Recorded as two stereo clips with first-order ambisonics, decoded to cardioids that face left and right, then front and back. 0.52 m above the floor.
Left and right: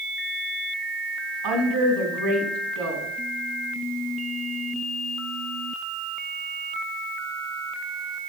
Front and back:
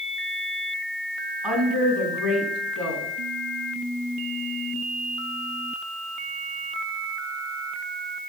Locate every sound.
1.4 s a woman speaking: 90° right, 3.5 m